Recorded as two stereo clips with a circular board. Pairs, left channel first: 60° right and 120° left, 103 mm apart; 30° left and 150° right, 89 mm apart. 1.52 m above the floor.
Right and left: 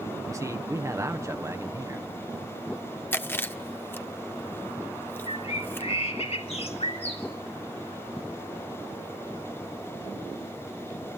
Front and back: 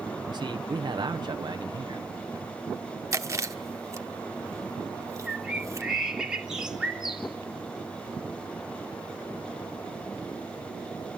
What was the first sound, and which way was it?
A man speaking, straight behind.